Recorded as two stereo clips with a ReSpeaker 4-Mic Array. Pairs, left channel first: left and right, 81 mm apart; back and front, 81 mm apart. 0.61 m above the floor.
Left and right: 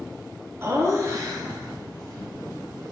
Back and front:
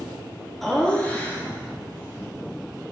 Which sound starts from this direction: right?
Laughter, at 0.6 s.